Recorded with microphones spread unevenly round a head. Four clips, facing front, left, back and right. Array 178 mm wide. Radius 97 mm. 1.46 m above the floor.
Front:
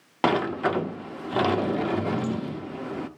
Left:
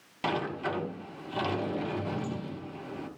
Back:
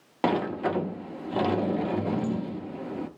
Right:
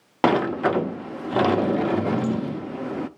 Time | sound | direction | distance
0.2 | a sliding door | 75° right | 0.6 m